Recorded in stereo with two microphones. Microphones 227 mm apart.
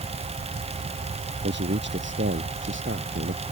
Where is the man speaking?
55° right (ahead or behind); by 3.4 s 60° right (ahead or behind).